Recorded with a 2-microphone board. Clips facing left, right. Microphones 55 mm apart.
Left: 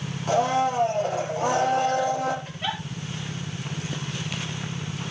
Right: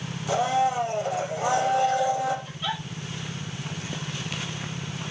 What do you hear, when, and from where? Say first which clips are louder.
0.3 s a blender: left 1 dB; 50° left (ahead or behind), 6 m
2.5 s a giggle: left 1 dB; 45° left (ahead or behind), 5.5 m